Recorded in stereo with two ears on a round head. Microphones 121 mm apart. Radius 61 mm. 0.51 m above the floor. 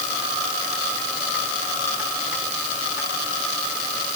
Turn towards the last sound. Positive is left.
No sound to turn to.